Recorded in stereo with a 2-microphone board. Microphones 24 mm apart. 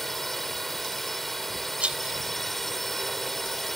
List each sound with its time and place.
0.0 s a drone: 10° left (ahead or behind)
1.8 s a rattle: 60° right (ahead or behind)